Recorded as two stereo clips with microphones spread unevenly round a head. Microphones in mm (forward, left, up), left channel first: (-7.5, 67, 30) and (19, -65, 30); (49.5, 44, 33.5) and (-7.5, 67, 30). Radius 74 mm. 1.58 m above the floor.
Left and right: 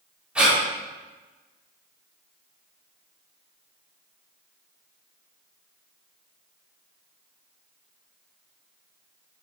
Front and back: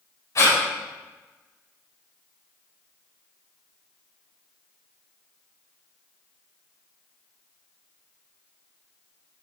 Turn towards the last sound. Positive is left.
turn(degrees=5)